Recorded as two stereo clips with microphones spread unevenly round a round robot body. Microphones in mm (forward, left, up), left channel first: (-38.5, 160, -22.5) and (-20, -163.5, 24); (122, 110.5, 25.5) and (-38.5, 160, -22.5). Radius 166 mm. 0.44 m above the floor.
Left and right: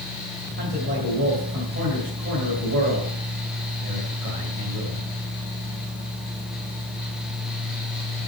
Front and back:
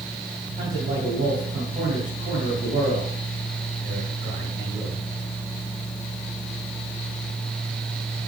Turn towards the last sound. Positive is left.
turn(degrees=-140)